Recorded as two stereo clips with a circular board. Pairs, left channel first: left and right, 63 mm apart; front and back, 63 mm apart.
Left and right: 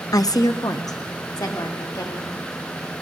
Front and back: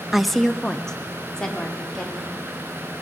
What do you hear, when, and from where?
0.1 s a woman speaking: 95° left, 0.5 m; by 2.4 s 80° left, 3.5 m